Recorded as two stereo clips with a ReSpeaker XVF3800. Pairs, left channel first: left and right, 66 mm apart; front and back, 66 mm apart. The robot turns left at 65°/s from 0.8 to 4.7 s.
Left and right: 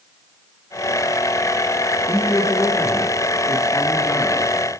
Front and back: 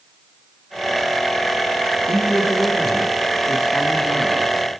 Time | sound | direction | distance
2.1 | a man speaking | 155° left | 6 m